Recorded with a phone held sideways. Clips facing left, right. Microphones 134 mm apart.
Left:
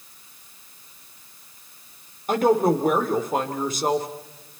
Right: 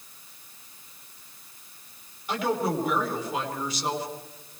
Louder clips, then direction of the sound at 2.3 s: Left 8 dB; 50° left (ahead or behind).